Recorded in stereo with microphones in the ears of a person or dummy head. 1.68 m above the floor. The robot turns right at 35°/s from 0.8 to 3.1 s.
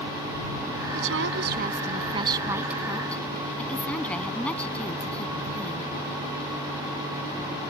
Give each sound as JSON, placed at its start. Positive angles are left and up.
{"t": 0.9, "sound": "a woman speaking", "azimuth_deg": -60}